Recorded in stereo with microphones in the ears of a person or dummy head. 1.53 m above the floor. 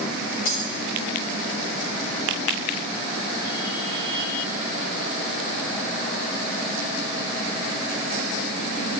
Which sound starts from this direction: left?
Breaking glass, at 0.5 s.